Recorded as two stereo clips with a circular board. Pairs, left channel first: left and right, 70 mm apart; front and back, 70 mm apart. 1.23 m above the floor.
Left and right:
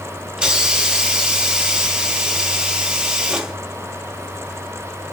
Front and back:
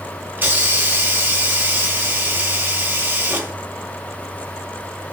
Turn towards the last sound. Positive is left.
turn(degrees=-155)